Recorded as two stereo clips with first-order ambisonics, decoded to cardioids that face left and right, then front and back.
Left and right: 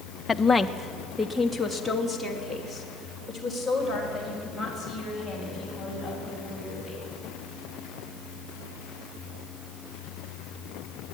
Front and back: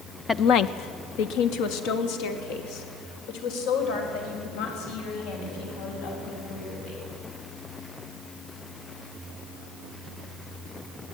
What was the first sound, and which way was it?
A woman speaking, 45° left.